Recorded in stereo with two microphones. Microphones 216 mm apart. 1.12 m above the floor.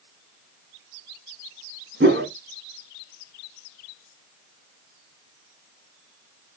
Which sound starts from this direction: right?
A whoosh, at 2.0 s.